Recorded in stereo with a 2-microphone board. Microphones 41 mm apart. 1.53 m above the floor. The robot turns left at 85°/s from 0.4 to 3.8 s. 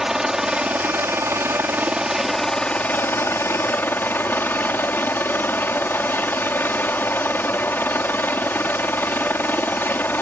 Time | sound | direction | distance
0.0 | a helicopter | 15° right | ?